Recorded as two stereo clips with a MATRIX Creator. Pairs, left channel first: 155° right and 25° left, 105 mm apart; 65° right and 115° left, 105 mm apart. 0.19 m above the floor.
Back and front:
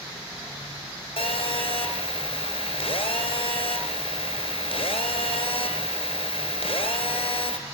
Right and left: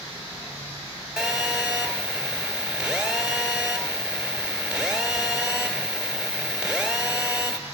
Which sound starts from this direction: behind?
A phone buzzing, at 1.2 s.